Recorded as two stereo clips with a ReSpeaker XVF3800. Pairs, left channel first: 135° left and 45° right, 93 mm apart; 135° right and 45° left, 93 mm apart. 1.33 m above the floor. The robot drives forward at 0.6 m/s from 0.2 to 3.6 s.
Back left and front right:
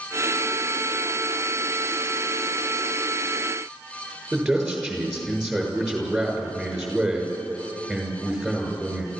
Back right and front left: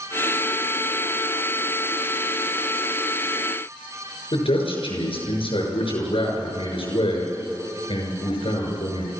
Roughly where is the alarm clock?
No alarm clock in this recording.